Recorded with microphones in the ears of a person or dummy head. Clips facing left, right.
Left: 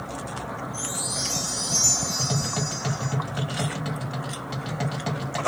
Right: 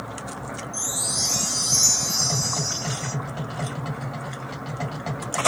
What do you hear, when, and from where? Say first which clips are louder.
0.7 s a chime: even; 60° right (ahead or behind), 1.2 m
2.2 s tapping: left 1 dB; 15° left (ahead or behind), 0.9 m